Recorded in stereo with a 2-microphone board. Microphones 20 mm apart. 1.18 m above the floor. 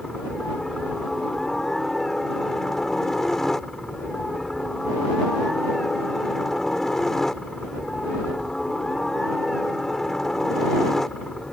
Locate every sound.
0.0 s a helicopter: 20° left (ahead or behind)